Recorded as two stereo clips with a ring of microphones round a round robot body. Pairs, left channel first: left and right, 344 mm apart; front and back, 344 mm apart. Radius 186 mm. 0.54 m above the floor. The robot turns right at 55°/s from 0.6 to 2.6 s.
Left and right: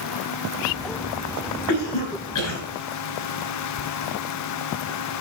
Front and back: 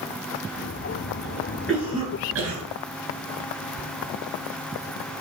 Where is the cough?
85° left, 4.5 m; by 2.6 s 140° left, 4.5 m.